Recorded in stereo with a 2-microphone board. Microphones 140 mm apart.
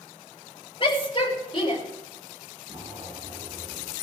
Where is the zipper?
30° right (ahead or behind), 8 m.